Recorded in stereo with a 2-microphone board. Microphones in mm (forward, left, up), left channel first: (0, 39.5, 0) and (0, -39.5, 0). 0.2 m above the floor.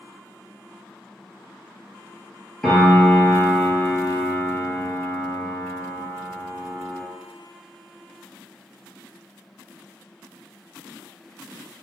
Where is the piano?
10° left (ahead or behind), 1.1 m.